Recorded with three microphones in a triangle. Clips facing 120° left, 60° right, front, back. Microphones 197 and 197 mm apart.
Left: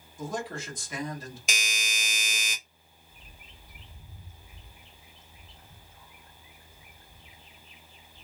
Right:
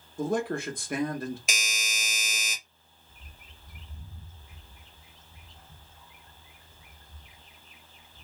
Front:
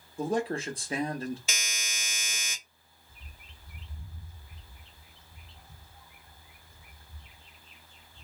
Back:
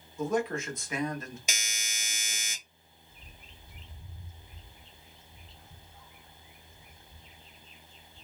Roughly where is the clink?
No clink in this recording.